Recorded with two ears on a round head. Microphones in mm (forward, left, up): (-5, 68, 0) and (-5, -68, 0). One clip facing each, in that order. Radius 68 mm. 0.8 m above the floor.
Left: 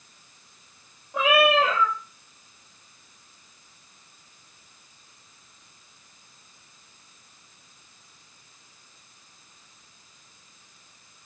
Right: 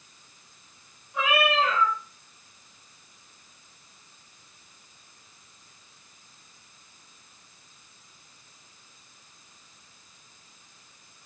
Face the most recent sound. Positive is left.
turn(degrees=50)  # may be behind; listen again after turning